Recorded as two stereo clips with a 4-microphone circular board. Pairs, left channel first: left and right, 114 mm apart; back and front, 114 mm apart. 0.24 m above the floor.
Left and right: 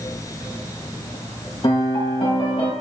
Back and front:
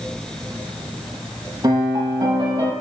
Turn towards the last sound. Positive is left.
turn(degrees=50)